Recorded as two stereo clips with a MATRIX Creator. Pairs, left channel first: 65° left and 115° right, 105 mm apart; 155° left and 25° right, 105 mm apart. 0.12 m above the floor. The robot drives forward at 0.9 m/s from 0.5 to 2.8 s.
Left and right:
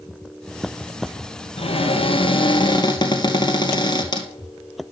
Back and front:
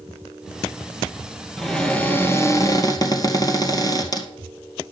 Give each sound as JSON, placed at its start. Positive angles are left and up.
{"t": 1.6, "sound": "a cupboard door", "azimuth_deg": 70, "distance_m": 1.8}